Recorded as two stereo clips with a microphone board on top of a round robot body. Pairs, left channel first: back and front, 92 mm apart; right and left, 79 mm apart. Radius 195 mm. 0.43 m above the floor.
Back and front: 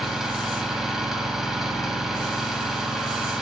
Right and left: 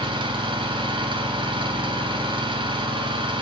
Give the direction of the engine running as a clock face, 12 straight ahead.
9 o'clock.